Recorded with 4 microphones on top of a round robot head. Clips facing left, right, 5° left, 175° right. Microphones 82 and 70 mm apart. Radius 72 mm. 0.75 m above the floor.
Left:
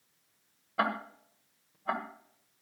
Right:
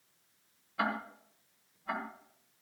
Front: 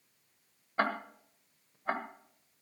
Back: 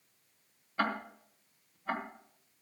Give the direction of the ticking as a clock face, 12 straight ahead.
10 o'clock.